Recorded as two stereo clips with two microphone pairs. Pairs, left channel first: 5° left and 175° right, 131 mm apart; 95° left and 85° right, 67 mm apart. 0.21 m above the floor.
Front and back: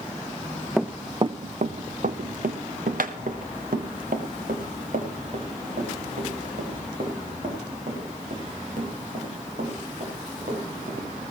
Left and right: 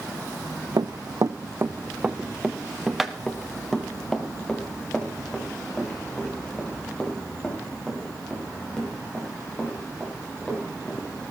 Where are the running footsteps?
80° right, 0.8 m; by 11.0 s 170° left, 9 m.